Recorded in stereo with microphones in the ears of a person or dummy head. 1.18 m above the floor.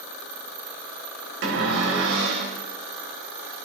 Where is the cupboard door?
75° right (ahead or behind), 3 m.